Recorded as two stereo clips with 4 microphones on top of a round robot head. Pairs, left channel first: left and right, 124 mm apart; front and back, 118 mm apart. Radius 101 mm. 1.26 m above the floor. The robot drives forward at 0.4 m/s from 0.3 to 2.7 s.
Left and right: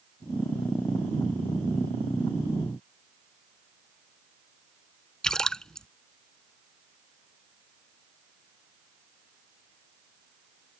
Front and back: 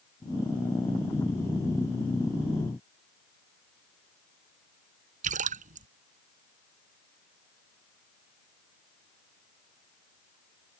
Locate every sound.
5.2 s a splash: 175° left